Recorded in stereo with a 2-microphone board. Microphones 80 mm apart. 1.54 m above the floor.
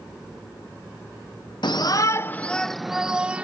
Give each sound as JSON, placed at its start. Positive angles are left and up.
{"t": 1.6, "sound": "a shout", "side_deg": 70}